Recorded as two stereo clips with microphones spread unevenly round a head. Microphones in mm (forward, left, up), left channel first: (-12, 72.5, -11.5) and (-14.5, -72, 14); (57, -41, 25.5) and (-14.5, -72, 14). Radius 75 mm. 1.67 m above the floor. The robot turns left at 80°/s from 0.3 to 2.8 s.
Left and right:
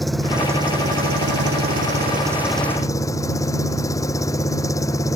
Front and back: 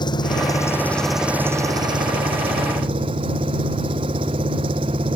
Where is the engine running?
Straight ahead; by 5.2 s 160° left.